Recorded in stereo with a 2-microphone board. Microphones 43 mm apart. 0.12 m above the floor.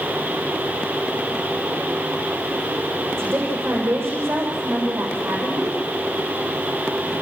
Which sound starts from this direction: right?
A woman speaking, at 3.2 s.